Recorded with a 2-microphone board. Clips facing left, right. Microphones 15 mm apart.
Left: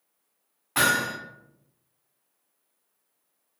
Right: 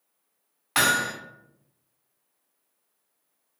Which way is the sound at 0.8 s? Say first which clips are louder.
Right 1 dB; 55° right (ahead or behind).